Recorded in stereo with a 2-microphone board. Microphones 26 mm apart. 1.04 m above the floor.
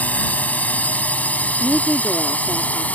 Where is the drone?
80° left.